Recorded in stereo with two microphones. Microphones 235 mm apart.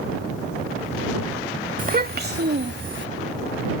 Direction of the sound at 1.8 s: 35° right (ahead or behind).